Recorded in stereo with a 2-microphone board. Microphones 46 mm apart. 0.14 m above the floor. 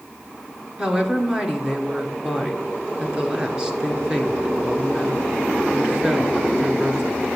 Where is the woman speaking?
20° right (ahead or behind), 1.7 m.